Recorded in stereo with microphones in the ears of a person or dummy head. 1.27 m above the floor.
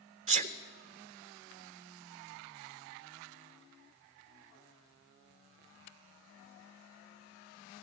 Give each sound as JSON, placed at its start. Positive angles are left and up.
{"t": 0.3, "sound": "a sneeze", "side_deg": -35, "distance_m": 0.7}